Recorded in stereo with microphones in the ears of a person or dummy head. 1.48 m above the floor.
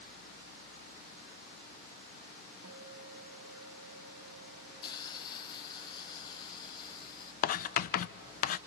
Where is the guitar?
85° right, 1.2 m.